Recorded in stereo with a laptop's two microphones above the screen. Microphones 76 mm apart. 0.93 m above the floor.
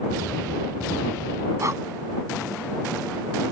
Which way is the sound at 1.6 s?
45° right (ahead or behind).